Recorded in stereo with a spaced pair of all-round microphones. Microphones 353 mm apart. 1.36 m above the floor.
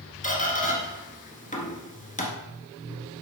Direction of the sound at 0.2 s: 20° left (ahead or behind).